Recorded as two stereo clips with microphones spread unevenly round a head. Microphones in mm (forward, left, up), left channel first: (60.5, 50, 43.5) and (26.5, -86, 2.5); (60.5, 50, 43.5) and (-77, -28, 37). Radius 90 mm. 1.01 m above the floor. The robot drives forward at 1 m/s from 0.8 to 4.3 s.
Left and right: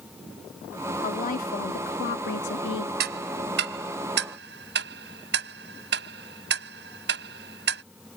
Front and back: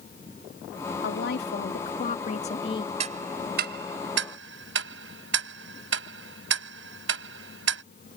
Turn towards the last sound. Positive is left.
turn(degrees=-135)